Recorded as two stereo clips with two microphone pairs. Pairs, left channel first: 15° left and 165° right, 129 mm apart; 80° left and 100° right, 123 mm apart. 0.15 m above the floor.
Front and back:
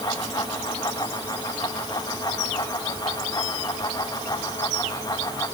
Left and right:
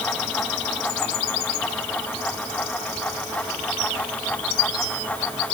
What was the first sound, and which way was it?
Only background noise.